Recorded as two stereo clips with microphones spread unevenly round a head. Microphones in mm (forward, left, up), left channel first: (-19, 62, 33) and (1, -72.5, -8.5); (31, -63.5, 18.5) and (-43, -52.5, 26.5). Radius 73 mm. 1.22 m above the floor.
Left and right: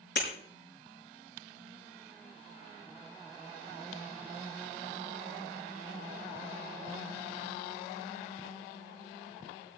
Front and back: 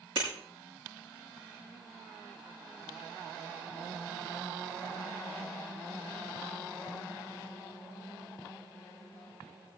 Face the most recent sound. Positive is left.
turn(degrees=105)